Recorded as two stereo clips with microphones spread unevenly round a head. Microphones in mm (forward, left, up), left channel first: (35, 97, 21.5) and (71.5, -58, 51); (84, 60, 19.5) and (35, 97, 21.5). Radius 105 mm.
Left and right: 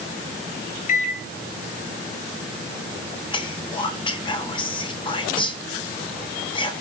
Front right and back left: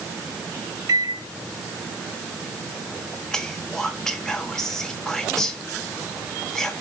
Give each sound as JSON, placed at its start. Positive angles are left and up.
{"t": 0.9, "sound": "a microwave", "azimuth_deg": 135, "distance_m": 0.8}
{"t": 3.3, "sound": "whispering", "azimuth_deg": 45, "distance_m": 2.0}